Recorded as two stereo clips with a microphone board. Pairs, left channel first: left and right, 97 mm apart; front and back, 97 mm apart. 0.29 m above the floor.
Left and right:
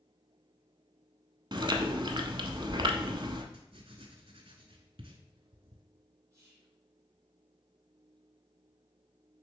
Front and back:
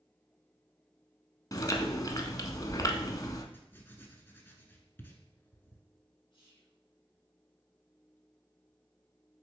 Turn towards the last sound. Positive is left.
turn(degrees=-35)